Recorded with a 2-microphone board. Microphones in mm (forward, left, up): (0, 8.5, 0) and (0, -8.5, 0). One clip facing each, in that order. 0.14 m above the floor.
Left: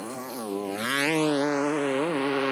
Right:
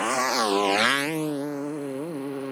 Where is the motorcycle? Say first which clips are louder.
Right 11 dB; 65° right (ahead or behind); by 2.5 s 50° left (ahead or behind).